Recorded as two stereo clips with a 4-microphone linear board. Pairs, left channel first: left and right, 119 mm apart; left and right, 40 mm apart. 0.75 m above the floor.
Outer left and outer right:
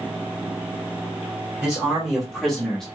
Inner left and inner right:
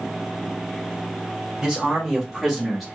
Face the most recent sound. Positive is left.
turn(degrees=5)  # may be behind; listen again after turning